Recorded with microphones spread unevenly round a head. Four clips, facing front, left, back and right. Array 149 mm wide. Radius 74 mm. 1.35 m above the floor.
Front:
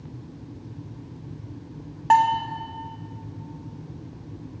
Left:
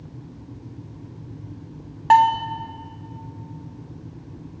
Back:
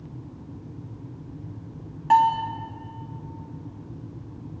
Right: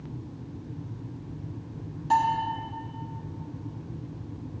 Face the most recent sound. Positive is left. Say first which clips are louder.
# left 9 dB, even
turn(degrees=65)